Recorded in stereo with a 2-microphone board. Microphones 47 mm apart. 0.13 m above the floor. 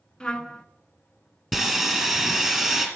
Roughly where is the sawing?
Centre.